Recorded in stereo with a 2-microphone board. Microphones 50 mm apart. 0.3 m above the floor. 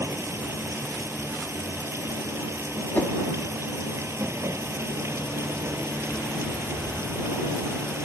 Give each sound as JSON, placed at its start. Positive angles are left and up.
{"t": 0.0, "sound": "running water", "side_deg": -65}
{"t": 2.9, "sound": "a whoosh", "side_deg": 40}